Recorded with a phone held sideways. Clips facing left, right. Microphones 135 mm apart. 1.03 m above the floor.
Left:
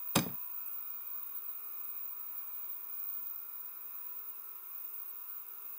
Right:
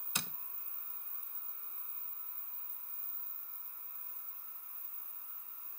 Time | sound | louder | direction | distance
0.1 | a door slam | left 14 dB | 60° left (ahead or behind) | ?